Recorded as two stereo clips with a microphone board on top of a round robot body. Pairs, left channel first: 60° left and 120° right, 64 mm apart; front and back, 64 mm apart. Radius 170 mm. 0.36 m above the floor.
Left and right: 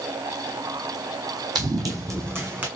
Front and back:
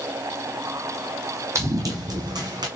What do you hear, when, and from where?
1.6 s running footsteps: 135° right, 1.0 m; by 2.7 s 175° left, 1.4 m